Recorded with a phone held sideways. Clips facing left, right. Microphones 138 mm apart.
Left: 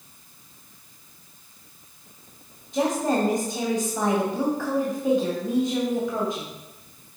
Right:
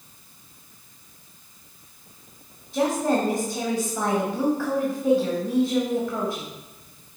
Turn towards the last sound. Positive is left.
turn(degrees=0)  # may be behind; listen again after turning